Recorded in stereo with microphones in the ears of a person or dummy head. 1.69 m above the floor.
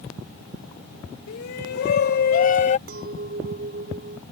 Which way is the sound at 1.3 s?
70° left (ahead or behind).